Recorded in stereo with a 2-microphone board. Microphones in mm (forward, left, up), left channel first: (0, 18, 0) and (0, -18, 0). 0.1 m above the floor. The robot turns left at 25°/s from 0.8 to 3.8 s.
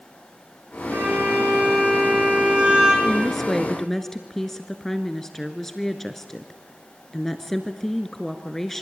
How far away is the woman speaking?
About 1.2 m.